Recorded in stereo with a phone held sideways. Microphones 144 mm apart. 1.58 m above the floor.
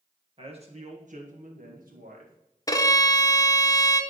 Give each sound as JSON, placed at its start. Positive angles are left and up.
{"t": 0.4, "sound": "a man speaking", "side_deg": -40, "distance_m": 1.7}
{"t": 2.7, "sound": "a violin", "side_deg": 25, "distance_m": 0.6}